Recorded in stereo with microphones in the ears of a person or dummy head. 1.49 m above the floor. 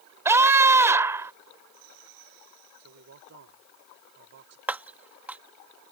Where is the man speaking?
55° right (ahead or behind).